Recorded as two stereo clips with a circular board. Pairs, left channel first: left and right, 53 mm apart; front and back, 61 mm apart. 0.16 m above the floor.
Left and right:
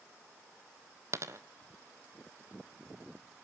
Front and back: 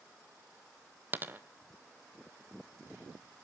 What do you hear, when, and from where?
1.1 s a dropped coin: 120° right, 0.7 m